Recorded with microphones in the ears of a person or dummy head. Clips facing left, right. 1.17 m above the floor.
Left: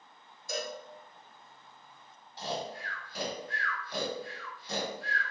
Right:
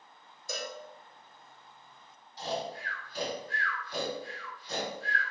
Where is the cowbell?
65° right (ahead or behind), 0.8 m.